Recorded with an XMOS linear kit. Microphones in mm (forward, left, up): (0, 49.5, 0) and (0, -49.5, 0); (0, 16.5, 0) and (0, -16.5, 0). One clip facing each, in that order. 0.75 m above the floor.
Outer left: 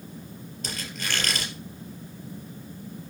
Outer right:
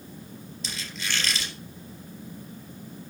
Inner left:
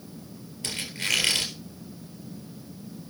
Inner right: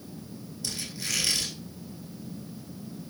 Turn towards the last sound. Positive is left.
turn(degrees=55)  # may be behind; listen again after turning